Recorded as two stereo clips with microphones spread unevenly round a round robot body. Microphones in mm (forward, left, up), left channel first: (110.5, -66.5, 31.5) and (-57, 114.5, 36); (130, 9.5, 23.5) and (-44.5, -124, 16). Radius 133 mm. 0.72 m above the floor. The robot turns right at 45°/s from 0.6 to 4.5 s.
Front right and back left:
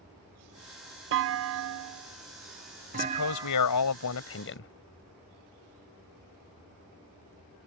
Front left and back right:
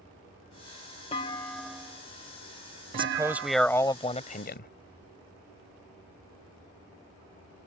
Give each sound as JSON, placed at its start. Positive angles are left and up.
{"t": 1.1, "sound": "a clunk", "azimuth_deg": 105}
{"t": 2.9, "sound": "a man speaking", "azimuth_deg": -80}